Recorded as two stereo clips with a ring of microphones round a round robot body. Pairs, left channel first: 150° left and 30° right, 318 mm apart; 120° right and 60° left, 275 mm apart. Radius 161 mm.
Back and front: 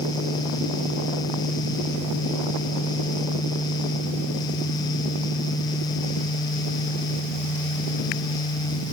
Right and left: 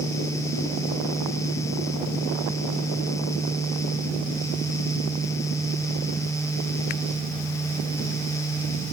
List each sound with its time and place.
Only background noise.